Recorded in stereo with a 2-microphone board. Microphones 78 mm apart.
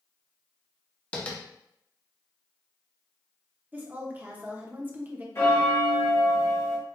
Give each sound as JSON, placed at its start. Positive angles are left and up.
{"t": 1.1, "sound": "tapping", "side_deg": 20, "distance_m": 0.8}
{"t": 3.7, "sound": "a woman speaking", "side_deg": -25, "distance_m": 0.8}
{"t": 5.3, "sound": "a bell", "side_deg": 35, "distance_m": 1.4}